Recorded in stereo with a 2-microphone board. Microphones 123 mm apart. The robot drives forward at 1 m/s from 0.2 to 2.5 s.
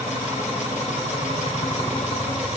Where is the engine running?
85° left, 9.5 m; by 2.6 s 80° left, 9.5 m.